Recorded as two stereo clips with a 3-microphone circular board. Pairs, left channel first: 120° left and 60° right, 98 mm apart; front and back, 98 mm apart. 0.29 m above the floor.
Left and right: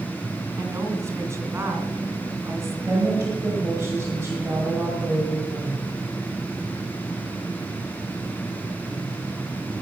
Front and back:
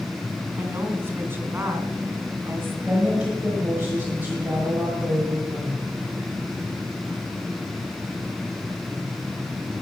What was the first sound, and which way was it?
A woman speaking, 115° right.